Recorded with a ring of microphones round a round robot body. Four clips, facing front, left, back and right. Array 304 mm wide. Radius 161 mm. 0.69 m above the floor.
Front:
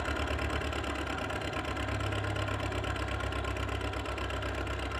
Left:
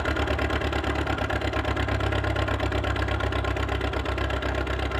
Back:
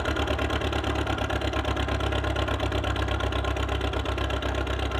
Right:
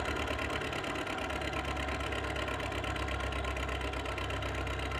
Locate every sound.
0.0 s an engine running: 125° left, 1.0 m